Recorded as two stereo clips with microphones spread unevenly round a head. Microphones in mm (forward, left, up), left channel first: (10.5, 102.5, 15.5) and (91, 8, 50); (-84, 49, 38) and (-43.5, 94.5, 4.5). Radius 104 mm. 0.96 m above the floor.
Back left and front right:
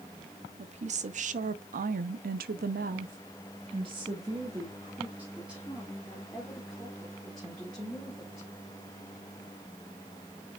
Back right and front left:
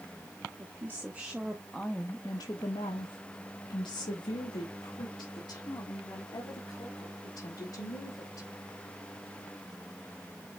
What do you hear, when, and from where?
0.6 s a woman speaking: 15° right, 1.2 m; by 8.5 s 145° right, 3 m